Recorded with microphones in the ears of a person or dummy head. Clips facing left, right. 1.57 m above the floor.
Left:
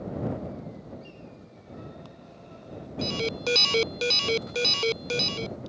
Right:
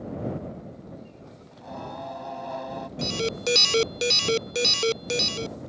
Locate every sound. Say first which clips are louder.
1.5 s singing: right 9 dB; 80° right
3.0 s an alarm: right 1 dB; 20° right (ahead or behind)